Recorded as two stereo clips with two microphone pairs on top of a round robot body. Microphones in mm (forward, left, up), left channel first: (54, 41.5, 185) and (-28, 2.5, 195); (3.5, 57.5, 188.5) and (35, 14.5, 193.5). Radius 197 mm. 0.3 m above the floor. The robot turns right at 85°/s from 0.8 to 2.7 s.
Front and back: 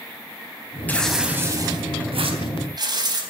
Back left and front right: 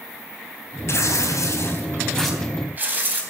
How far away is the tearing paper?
About 3.5 m.